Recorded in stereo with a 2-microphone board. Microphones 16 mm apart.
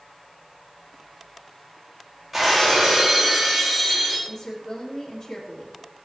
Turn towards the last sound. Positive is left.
turn(degrees=70)  # may be behind; listen again after turning